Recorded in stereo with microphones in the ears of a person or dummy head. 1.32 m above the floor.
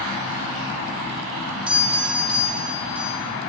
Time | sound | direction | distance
1.7 | a doorbell | 5° right (ahead or behind) | 0.9 m